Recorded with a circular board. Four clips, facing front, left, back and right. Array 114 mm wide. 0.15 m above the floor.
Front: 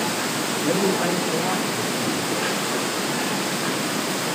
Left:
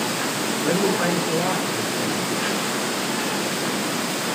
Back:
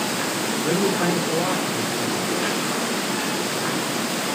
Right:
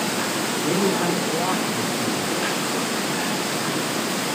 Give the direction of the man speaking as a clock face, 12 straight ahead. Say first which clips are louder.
Left 1 dB, even; 9 o'clock.